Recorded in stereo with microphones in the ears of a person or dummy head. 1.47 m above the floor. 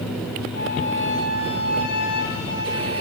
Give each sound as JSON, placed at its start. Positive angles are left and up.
{"t": 0.5, "sound": "a flute", "side_deg": 65, "distance_m": 9.0}